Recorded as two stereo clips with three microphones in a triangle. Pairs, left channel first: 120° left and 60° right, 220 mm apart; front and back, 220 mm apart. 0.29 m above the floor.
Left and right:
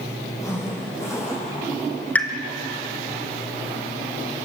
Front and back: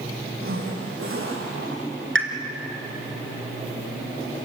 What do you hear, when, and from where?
0.4 s a zipper: 165° right, 8 m
2.1 s a pop: 155° right, 2.5 m